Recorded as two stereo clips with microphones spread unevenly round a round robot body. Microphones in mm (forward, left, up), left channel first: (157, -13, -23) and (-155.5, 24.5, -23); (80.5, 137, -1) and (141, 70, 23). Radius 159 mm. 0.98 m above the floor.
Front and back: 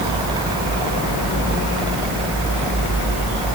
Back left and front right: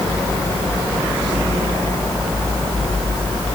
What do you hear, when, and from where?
Only background noise.